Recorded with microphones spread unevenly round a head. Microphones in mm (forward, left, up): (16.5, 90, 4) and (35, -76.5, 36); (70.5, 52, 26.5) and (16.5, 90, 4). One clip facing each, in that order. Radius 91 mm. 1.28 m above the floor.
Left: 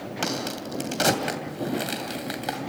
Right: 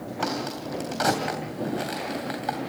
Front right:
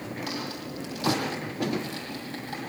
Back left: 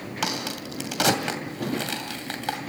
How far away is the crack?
About 2.5 m.